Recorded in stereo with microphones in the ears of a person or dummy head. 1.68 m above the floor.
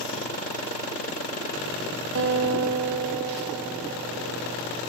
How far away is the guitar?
About 1.1 m.